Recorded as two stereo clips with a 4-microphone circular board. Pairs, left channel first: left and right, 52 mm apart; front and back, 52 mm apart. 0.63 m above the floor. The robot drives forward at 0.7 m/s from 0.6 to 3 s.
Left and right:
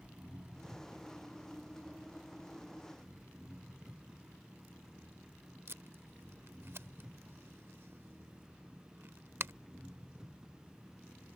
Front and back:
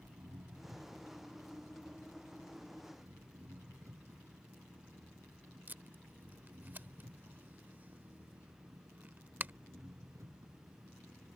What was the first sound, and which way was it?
An engine running, 165° right.